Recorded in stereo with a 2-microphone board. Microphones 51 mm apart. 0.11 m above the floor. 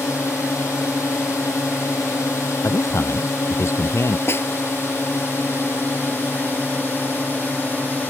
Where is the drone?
70° left (ahead or behind); by 8.1 s 40° left (ahead or behind).